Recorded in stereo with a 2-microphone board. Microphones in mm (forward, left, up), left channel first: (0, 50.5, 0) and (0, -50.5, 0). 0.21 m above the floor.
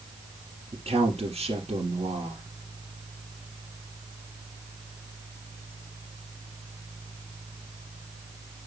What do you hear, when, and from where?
0.7 s a man speaking: 70° right (ahead or behind), 3.5 m